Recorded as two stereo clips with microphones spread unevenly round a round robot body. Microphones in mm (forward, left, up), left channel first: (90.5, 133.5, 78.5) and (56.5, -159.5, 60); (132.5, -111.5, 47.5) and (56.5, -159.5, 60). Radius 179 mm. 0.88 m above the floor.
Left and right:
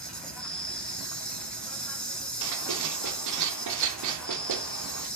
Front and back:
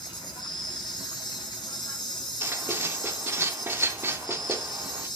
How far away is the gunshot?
No gunshot in this recording.